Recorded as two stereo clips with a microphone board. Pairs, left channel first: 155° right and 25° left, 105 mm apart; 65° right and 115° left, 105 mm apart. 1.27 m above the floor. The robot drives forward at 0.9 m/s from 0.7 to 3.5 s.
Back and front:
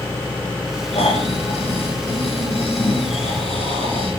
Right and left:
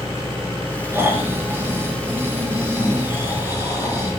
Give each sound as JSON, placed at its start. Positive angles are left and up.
{"t": 0.9, "sound": "snoring", "azimuth_deg": 180, "distance_m": 7.5}